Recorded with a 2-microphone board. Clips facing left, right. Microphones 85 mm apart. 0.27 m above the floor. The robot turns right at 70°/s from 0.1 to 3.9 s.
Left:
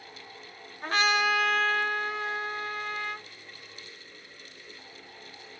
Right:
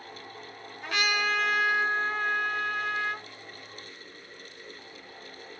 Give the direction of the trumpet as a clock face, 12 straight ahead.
8 o'clock.